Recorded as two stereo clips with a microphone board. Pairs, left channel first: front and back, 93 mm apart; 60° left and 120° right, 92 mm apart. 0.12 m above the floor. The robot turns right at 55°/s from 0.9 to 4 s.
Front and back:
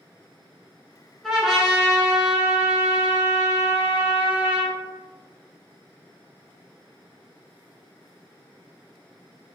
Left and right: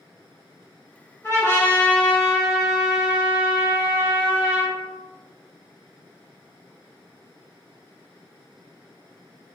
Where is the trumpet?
80° left, 1.3 m; by 4.8 s 125° right, 1.3 m.